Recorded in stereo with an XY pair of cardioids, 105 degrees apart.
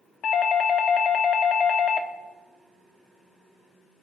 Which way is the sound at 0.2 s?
65° left.